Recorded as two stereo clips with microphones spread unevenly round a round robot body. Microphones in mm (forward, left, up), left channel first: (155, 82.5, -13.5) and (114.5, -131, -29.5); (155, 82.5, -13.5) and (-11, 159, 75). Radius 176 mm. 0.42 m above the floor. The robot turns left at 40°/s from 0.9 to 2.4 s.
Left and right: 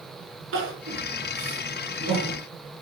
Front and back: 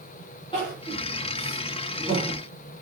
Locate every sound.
0.5 s crying: 90° right, 5.5 m; by 2.4 s 150° right, 5.5 m